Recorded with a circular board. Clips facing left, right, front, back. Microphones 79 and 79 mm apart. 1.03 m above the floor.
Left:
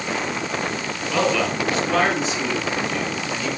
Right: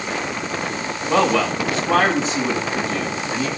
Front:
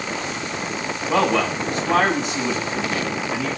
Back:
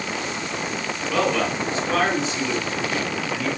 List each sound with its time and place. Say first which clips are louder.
1.1 s a man speaking: right 3 dB, front 3 dB; 35° right, 8 m